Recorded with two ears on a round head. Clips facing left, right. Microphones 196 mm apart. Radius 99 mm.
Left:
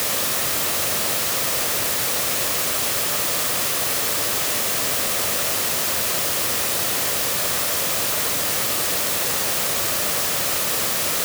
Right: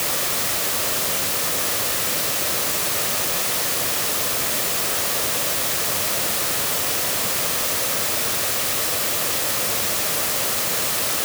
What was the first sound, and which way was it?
Only background noise.